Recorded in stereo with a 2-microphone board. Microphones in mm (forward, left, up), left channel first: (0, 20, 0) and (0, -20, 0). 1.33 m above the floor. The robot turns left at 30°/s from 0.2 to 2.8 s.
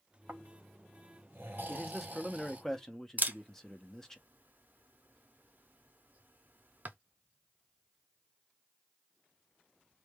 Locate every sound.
0.3 s snoring: 75° right, 0.7 m; by 2.6 s 145° right, 0.7 m
1.7 s a man speaking: 165° right, 0.5 m; by 4.2 s 165° left, 0.5 m
3.2 s a camera shutter: 45° right (ahead or behind), 0.5 m